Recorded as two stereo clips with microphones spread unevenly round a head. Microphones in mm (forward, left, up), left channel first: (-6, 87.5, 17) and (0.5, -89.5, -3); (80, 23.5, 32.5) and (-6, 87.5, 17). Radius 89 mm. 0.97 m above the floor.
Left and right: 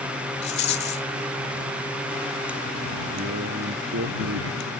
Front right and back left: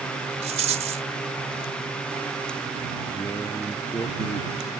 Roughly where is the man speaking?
Right.